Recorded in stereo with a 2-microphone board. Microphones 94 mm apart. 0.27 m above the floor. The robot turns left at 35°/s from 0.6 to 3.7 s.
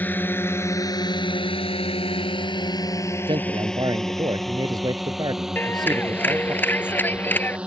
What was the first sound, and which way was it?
A drone, 20° left (ahead or behind).